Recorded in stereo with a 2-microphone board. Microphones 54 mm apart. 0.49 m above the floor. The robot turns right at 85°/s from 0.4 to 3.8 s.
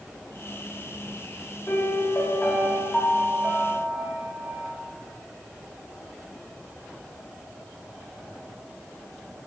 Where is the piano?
45° left, 1.5 m; by 4.8 s 135° right, 1.5 m.